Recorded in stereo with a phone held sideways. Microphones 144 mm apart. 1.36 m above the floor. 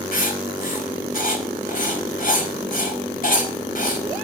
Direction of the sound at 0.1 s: 65° left (ahead or behind).